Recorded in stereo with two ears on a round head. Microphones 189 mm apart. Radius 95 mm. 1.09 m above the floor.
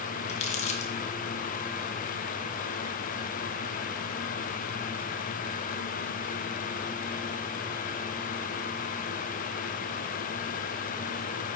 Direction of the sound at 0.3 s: 35° left (ahead or behind).